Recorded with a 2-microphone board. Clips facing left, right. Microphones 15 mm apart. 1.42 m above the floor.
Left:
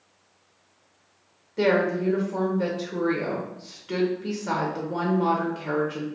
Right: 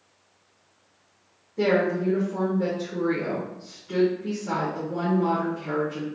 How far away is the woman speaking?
About 0.6 m.